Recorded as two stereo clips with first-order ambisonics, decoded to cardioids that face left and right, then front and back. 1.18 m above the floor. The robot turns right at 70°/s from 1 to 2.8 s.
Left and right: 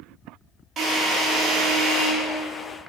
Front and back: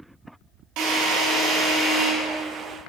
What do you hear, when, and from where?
0.8 s a drill: 160° right, 3 m; by 2.1 s 85° right, 3 m